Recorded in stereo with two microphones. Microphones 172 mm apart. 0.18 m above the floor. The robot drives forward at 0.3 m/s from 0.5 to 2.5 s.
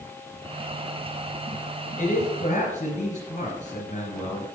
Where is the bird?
No bird in this recording.